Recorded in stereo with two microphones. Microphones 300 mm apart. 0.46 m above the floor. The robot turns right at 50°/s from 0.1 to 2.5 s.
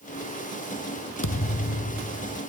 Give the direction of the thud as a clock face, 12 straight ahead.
9 o'clock.